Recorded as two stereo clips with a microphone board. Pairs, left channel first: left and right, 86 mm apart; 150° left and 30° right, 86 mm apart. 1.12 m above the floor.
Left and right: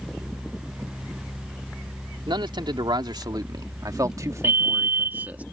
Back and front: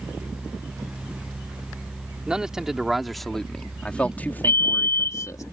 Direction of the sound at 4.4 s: 150° right.